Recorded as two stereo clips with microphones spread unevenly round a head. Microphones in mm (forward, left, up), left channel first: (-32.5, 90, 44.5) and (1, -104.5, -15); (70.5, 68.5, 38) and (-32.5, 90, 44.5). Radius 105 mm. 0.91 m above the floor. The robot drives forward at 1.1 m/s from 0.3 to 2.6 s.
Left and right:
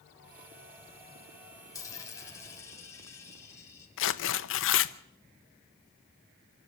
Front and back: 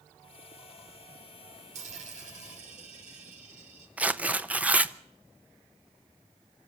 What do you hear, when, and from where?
1.7 s a dropped coin: 170° left, 3 m; by 3.9 s 175° left, 4 m
4.0 s tearing paper: 95° left, 0.9 m